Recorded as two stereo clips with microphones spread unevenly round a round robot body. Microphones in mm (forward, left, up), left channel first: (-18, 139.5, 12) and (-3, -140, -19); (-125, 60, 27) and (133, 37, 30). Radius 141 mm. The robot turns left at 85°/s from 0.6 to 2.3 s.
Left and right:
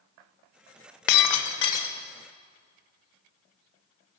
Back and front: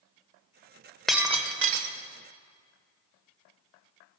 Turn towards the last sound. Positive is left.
turn(degrees=-15)